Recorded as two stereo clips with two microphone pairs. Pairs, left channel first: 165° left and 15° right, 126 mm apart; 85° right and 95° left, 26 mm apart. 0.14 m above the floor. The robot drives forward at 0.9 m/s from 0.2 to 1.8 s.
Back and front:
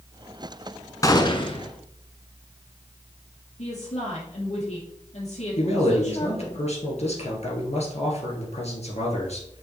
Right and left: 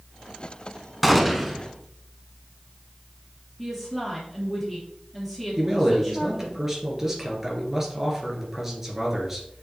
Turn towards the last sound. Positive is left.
turn(degrees=165)